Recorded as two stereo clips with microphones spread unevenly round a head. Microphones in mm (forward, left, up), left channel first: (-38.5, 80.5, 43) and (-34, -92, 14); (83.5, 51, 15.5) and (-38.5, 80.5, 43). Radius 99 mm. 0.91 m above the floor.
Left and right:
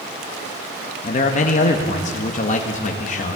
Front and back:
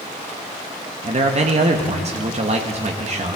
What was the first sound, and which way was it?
A man speaking, 135° left.